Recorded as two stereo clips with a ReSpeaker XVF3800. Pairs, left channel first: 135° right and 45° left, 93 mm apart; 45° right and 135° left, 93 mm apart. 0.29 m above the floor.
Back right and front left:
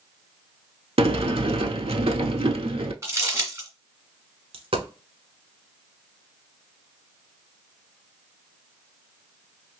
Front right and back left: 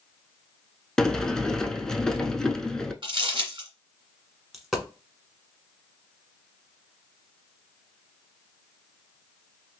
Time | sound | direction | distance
1.0 | a sliding door | 35° left | 0.5 m
3.0 | crumpling | 105° left | 1.9 m
4.5 | a dropped coin | 45° left | 1.1 m